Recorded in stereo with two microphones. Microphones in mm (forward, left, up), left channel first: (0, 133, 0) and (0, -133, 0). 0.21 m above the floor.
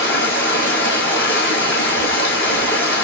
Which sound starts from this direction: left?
Running water, at 0.0 s.